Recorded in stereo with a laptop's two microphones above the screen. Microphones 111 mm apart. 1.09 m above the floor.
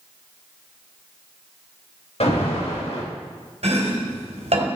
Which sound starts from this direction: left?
An alarm, at 2.2 s.